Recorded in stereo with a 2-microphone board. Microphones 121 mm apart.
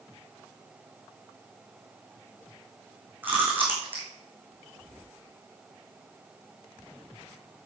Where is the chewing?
15° right (ahead or behind), 5 m.